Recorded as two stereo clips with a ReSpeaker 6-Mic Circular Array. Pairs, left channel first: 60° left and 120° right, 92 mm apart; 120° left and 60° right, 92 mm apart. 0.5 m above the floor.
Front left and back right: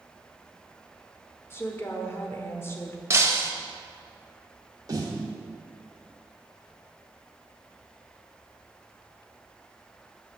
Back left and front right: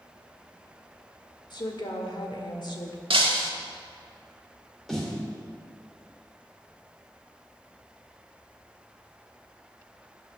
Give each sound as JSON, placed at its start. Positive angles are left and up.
{"t": 1.5, "sound": "a woman speaking", "azimuth_deg": 115, "distance_m": 1.1}
{"t": 3.1, "sound": "breaking glass", "azimuth_deg": -60, "distance_m": 0.9}
{"t": 4.9, "sound": "a snare drum", "azimuth_deg": -155, "distance_m": 1.7}